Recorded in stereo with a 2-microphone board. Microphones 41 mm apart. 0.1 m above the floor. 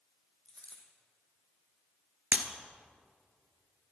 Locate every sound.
0.5 s a dropped coin: 25° left (ahead or behind), 2.5 m
2.3 s breaking glass: 45° right (ahead or behind), 1.0 m